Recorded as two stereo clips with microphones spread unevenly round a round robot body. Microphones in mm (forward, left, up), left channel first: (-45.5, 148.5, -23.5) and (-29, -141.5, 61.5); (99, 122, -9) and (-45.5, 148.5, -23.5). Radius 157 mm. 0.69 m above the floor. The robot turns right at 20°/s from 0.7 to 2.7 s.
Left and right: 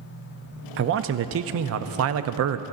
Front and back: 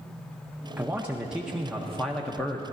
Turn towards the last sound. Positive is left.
turn(degrees=-90)